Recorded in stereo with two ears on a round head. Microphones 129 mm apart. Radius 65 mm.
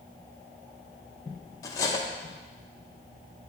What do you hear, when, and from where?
1.6 s cutlery clinking: 20° left (ahead or behind), 0.6 m